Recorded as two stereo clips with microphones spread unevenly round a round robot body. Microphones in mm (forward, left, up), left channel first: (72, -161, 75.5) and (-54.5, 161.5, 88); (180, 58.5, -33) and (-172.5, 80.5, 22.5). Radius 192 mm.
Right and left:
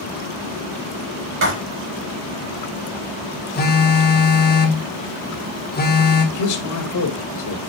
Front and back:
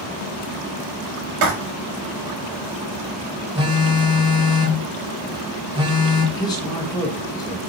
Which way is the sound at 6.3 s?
75° right.